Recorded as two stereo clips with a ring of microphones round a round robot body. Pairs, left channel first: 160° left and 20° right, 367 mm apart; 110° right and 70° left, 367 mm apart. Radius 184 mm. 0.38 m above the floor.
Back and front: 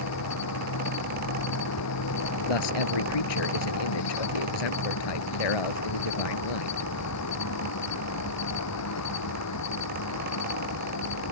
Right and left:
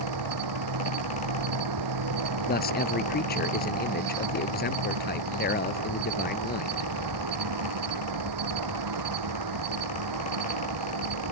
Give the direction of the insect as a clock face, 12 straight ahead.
8 o'clock.